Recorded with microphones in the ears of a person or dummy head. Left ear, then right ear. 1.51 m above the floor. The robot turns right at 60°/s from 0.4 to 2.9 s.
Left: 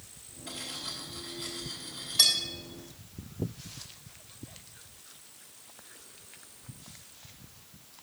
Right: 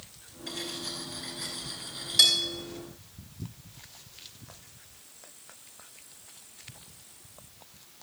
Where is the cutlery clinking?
45° right (ahead or behind), 5.5 m; by 2.4 s 20° right (ahead or behind), 5.5 m.